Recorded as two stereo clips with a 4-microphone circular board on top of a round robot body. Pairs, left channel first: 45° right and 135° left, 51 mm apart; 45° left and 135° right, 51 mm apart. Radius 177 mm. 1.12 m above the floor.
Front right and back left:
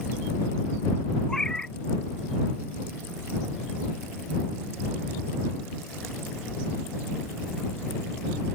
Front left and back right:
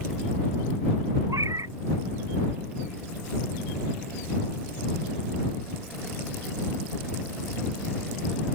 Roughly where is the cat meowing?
Behind right.